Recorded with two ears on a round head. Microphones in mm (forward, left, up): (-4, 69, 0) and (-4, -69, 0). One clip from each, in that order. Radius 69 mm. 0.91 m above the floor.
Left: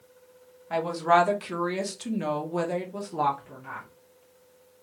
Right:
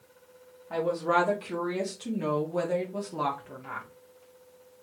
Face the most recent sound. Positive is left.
turn(degrees=-15)  # may be behind; listen again after turning